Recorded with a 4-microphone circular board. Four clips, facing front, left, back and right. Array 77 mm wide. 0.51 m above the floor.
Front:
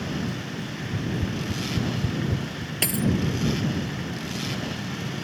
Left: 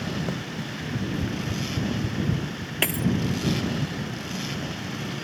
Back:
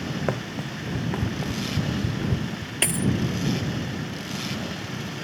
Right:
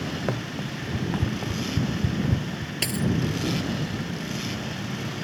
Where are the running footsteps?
155° right; by 2.7 s 130° right.